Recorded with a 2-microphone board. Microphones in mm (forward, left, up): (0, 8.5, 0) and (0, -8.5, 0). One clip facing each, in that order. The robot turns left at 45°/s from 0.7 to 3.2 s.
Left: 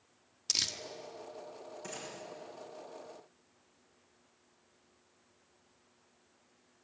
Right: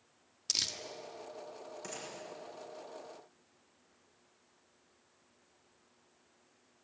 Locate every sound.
0.5 s crumpling: centre (ahead or behind), 1.5 m; by 0.8 s 5° left (ahead or behind), 1.5 m
1.8 s a gunshot: 25° right (ahead or behind), 9 m; by 2.1 s 15° right (ahead or behind), 9 m